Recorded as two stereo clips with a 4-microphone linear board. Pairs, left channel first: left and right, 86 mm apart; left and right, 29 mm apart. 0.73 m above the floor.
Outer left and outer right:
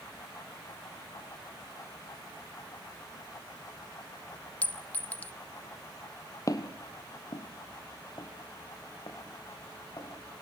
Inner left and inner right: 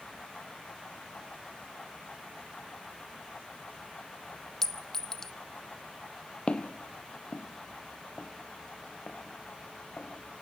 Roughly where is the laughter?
I don't hear laughter.